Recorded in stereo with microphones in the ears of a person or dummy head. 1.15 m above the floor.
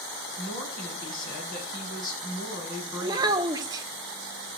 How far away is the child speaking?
About 1.5 m.